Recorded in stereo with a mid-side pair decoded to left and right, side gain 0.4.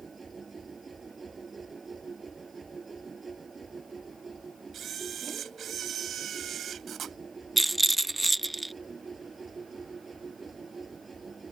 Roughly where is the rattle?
Ahead.